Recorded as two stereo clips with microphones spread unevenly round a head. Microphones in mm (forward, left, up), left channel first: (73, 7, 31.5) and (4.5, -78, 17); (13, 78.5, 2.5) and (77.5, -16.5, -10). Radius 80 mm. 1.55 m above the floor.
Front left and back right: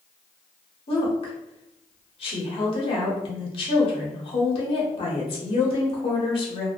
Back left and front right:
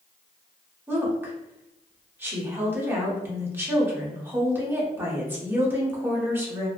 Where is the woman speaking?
15° left, 1.1 m.